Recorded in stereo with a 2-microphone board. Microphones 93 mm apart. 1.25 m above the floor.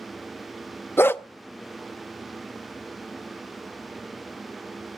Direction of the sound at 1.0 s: 25° left (ahead or behind).